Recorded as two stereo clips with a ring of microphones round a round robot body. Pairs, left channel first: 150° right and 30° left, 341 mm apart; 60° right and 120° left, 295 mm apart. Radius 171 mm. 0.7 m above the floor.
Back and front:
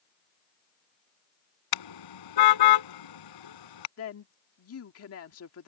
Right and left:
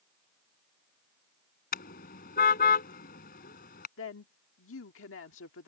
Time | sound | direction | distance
1.7 | a car horn | 125° right | ?
4.0 | a woman speaking | 105° right | ?